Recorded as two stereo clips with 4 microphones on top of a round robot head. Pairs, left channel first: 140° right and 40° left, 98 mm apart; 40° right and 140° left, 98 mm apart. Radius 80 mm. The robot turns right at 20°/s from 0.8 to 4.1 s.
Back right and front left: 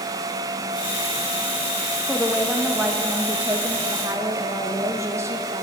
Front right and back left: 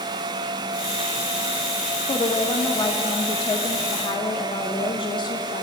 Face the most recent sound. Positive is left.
turn(degrees=-20)